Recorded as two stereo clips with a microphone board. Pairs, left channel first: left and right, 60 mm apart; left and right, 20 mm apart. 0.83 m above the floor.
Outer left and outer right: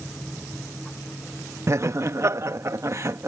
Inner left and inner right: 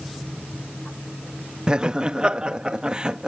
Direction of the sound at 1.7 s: 50° right (ahead or behind).